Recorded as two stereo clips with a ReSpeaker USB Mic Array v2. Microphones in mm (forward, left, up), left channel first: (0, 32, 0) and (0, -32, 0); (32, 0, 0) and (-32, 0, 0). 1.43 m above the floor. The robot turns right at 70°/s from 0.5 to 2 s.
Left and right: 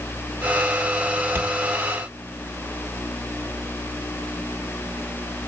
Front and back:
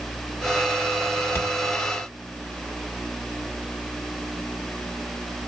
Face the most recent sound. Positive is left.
turn(degrees=0)